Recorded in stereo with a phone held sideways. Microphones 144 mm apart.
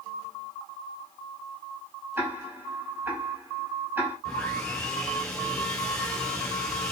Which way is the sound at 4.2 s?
5° left (ahead or behind).